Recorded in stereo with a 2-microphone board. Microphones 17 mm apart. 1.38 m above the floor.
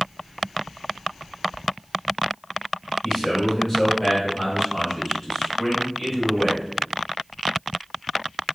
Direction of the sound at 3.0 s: 5° left (ahead or behind).